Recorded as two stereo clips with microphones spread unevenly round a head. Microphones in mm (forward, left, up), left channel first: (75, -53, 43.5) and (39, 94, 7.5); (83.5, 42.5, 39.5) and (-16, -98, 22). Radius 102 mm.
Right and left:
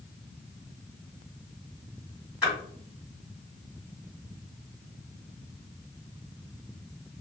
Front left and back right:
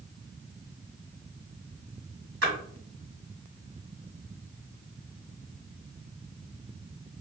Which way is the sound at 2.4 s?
160° right.